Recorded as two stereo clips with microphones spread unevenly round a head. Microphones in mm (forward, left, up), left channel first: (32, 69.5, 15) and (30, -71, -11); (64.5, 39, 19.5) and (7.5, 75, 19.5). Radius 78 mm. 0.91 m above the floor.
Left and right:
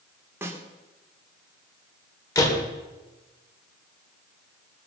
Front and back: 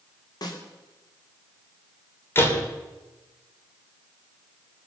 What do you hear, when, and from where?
0.4 s a snare drum: 20° right, 2.5 m
2.4 s a door slam: 20° left, 3 m